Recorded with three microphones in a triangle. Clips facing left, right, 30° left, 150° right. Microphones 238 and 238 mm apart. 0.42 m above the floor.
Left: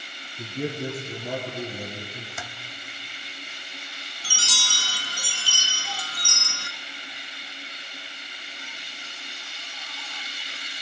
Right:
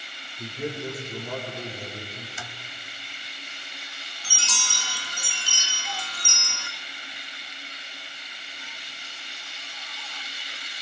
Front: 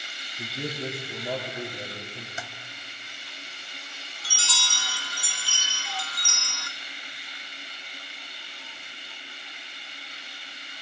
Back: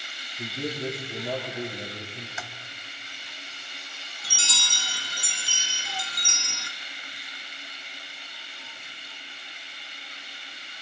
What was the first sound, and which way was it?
A man speaking, 110° left.